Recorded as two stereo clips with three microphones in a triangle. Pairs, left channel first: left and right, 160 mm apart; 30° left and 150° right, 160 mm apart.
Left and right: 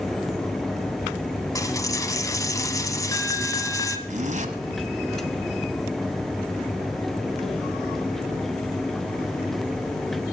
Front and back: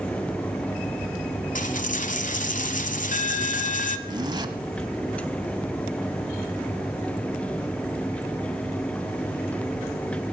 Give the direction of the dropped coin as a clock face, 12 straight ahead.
11 o'clock.